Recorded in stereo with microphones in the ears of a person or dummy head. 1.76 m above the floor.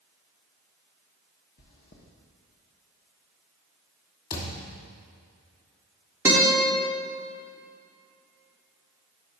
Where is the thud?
35° left (ahead or behind), 2 m.